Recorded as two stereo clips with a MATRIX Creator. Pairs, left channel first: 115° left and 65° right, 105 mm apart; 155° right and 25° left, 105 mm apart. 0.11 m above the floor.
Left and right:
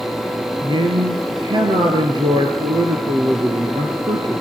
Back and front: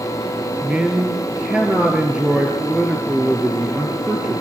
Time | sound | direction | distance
0.6 | a man speaking | 55° right | 1.7 m